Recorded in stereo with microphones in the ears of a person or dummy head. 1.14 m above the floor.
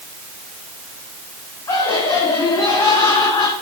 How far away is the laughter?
About 2.5 m.